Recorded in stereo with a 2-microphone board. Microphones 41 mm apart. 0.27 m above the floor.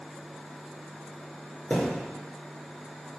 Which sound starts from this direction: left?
A thud, at 1.7 s.